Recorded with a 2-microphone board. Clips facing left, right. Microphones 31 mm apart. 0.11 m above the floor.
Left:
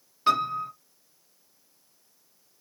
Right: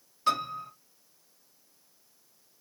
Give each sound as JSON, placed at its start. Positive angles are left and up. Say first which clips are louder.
{"t": 0.3, "sound": "a piano", "louder": "left 5 dB", "side_deg": 25, "distance_m": 1.5}